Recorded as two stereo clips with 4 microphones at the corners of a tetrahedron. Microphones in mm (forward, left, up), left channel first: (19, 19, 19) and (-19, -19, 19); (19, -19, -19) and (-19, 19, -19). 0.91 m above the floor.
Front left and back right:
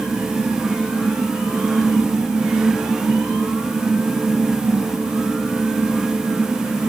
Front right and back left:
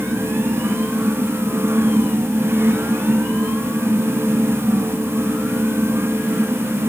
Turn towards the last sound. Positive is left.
No sound to turn to.